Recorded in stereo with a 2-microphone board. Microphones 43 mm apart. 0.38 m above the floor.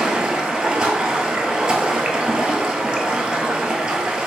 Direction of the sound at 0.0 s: 25° right (ahead or behind).